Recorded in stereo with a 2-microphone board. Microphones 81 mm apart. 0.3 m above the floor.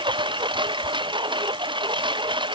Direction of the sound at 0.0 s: 75° right (ahead or behind).